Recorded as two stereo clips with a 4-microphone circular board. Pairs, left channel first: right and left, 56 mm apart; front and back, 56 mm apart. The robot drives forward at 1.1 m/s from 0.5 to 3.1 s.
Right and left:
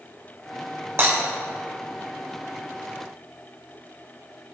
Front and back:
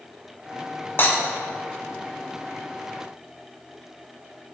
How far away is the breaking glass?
About 4.5 m.